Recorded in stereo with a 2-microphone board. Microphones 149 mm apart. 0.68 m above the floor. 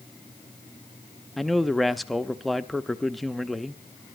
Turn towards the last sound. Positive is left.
turn(degrees=0)  # may be behind; listen again after turning